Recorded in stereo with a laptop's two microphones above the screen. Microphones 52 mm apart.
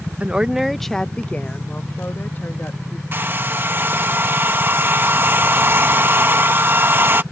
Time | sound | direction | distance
0.2 | a woman speaking | 25° right (ahead or behind) | ?
3.1 | a hair dryer | 45° right (ahead or behind) | ?